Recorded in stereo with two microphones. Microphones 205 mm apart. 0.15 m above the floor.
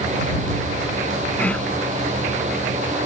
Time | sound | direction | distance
1.4 | whispering | 5° left (ahead or behind) | ?